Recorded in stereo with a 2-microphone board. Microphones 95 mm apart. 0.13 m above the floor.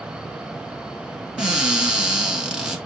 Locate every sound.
1.4 s a cupboard door: 10° right (ahead or behind), 1.6 m